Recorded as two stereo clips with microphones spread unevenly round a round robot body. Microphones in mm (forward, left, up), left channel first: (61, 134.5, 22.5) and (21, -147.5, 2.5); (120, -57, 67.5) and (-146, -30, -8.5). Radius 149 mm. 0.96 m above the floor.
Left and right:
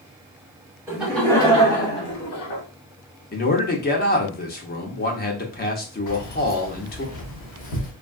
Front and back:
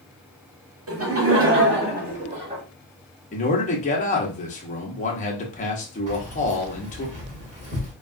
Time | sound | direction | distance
0.9 | laughter | straight behind | 1.2 m
3.3 | a man speaking | 60° left | 0.7 m
6.1 | keys jangling | 105° left | 1.4 m